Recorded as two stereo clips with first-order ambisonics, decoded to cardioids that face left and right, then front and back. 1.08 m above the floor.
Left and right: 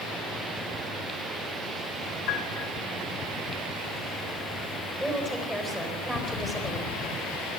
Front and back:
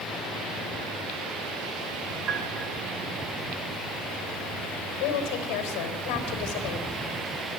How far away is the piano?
About 2.5 m.